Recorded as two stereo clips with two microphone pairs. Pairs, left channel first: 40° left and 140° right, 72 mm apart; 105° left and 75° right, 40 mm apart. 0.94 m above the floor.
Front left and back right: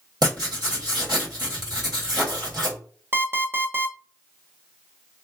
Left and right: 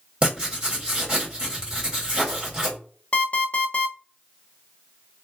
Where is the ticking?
No ticking in this recording.